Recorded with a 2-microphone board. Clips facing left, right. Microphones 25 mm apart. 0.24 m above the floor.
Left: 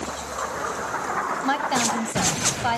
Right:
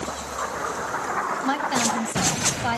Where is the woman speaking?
15° left (ahead or behind), 1.1 m.